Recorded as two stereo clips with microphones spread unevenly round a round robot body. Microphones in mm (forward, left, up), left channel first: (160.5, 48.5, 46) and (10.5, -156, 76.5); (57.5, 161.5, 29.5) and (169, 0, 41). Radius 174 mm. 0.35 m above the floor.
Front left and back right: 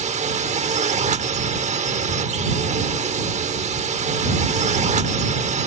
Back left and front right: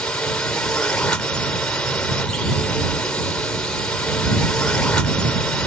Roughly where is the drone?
Behind.